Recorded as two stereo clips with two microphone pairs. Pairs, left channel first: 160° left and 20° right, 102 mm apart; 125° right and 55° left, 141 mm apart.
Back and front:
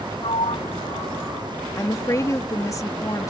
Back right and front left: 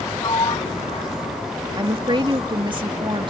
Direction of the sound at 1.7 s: 105° left.